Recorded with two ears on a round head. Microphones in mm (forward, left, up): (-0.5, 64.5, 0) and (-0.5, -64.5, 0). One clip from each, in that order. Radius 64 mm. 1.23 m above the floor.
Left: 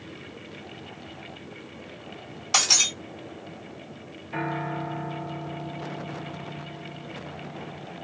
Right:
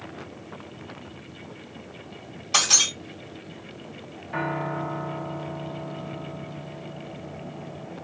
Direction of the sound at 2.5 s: 35° left (ahead or behind).